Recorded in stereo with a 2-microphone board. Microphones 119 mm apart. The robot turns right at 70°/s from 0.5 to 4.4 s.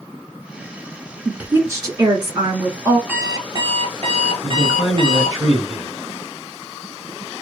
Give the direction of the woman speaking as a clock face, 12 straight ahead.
6 o'clock.